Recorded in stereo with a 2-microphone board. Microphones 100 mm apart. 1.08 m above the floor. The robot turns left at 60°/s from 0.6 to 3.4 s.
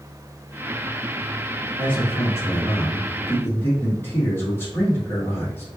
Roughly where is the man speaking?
Behind left.